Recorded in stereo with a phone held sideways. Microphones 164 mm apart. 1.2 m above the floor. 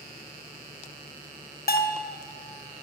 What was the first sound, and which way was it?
A bell, 65° left (ahead or behind).